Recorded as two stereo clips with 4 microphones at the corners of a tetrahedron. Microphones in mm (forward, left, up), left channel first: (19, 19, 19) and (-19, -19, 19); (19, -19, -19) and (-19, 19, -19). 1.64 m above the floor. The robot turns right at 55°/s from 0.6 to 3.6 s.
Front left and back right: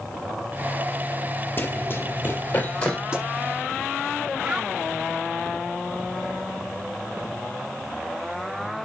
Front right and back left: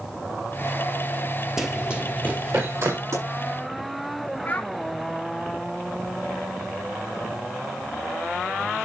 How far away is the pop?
About 7 m.